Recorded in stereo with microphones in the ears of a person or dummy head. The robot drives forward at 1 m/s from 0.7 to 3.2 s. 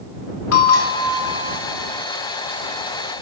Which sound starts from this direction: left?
A bell, at 0.5 s.